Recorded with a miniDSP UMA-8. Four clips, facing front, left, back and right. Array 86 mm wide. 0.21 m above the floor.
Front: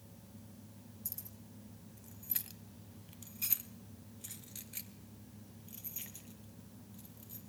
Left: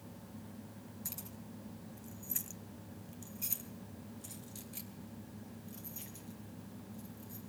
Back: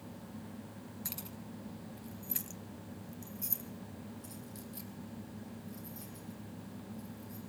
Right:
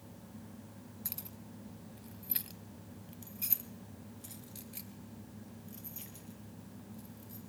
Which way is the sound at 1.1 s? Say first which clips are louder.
Left 1 dB, back 9 dB; 165° right.